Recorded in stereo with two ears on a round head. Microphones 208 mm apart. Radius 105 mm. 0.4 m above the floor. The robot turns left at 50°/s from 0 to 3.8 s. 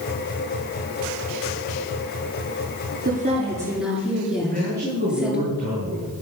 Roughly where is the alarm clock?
No alarm clock in this recording.